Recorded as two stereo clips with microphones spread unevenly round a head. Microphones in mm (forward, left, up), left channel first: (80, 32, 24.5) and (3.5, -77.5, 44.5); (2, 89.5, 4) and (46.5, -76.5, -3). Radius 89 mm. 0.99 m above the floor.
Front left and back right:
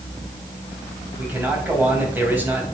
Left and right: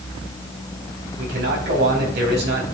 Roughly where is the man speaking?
Ahead right.